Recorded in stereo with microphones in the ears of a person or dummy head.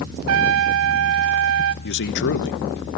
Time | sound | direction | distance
0.3 | a trumpet | 75° right (ahead or behind) | 0.8 m
1.8 | a man speaking | 65° left (ahead or behind) | 1.1 m